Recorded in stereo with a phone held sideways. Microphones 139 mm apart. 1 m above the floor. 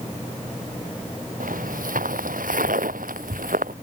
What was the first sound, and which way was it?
Footsteps, 80° right.